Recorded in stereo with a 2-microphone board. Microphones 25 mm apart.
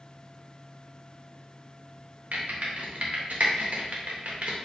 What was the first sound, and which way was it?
Typing on a keyboard, 65° right (ahead or behind).